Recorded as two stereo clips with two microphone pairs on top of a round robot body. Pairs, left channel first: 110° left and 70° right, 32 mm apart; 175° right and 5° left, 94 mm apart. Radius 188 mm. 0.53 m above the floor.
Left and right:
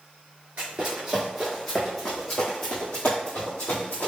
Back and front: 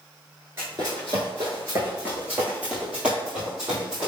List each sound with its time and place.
0.6 s running footsteps: 50° right, 0.6 m; by 4.1 s 85° left, 1.7 m